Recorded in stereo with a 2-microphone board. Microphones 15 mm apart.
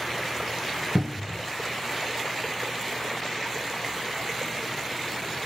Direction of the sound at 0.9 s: 45° right (ahead or behind).